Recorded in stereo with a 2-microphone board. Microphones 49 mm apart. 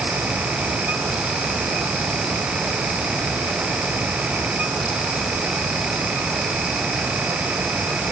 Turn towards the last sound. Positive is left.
No sound to turn to.